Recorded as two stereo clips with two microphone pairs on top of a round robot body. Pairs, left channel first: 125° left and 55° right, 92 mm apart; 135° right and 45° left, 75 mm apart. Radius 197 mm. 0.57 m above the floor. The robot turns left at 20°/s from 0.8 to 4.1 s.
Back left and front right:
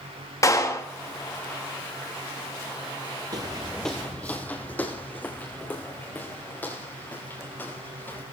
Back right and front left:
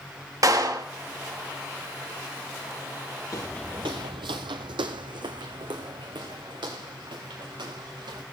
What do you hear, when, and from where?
0.4 s a clap: 75° left, 3 m
3.3 s footsteps: 100° right, 0.7 m; by 8.2 s 60° left, 5.5 m